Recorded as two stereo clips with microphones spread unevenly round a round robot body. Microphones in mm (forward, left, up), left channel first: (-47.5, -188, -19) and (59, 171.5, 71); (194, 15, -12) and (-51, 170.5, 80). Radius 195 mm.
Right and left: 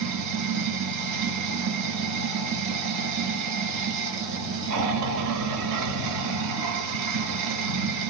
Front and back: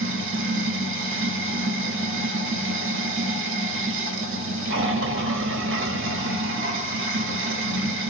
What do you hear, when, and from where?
0.0 s running water: 100° left, 0.8 m